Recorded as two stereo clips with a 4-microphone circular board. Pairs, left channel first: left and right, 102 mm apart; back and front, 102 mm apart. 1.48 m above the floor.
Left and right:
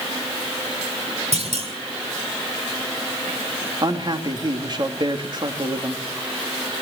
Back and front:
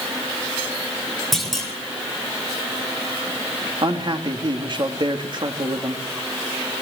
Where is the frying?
No frying in this recording.